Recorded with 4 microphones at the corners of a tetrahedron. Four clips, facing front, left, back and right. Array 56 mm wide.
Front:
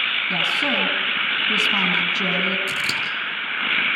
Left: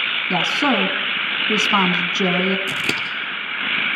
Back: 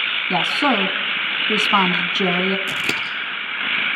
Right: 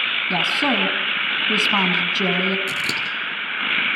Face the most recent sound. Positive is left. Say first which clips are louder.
# left 1 dB, back 1 dB
turn(degrees=130)